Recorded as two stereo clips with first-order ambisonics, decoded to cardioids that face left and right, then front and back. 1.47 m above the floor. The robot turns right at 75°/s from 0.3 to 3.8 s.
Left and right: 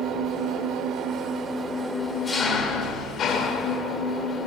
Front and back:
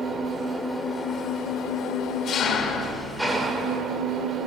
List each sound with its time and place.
0.0 s an engine running: 115° right, 1.3 m; by 4.5 s 145° left, 1.3 m